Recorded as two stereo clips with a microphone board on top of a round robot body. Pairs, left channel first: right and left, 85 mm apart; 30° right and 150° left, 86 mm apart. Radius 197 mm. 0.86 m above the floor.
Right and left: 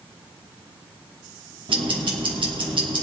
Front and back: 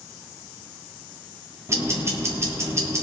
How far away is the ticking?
About 3 m.